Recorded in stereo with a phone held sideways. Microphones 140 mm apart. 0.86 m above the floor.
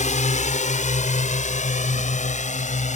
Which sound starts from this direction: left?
A drone, at 0.0 s.